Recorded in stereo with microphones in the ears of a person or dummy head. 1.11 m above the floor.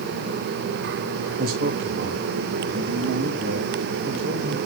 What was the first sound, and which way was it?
A man speaking, 45° right (ahead or behind).